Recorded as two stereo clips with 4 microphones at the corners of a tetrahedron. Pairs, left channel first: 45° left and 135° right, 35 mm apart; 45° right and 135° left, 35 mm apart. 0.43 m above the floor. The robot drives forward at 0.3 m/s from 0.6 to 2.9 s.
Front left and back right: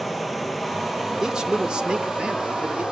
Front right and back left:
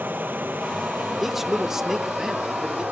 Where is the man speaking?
160° right, 0.8 m; by 2.8 s 175° right, 1.0 m.